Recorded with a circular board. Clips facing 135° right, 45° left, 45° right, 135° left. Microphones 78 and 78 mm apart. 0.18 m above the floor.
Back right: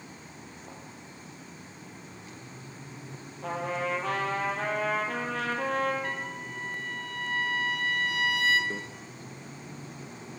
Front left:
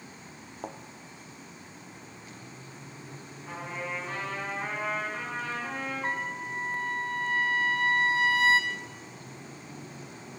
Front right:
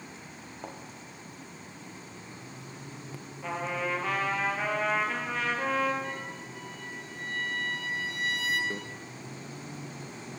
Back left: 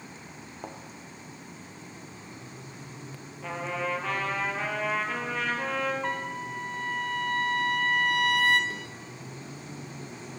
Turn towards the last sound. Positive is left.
turn(degrees=-95)